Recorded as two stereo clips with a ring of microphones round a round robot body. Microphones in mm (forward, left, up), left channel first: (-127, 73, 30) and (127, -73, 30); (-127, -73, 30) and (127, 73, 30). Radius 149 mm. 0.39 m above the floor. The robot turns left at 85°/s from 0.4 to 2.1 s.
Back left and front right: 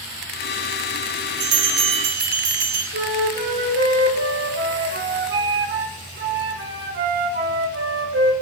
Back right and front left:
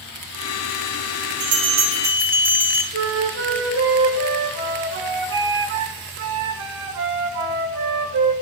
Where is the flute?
5° left, 1.3 m.